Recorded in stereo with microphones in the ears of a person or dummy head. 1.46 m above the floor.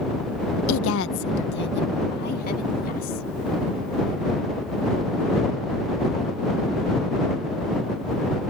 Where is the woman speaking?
80° left; by 3.2 s 45° left (ahead or behind).